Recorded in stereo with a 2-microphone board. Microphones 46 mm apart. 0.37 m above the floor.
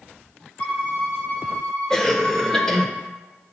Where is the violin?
30° left (ahead or behind), 1.2 m.